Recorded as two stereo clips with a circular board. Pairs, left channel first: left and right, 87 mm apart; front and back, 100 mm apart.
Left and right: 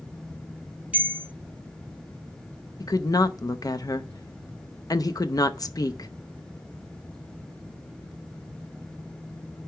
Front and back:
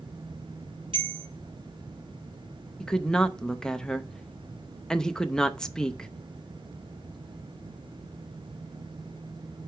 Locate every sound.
0.9 s a bell: 160° right, 2 m
2.8 s a woman speaking: 80° left, 0.6 m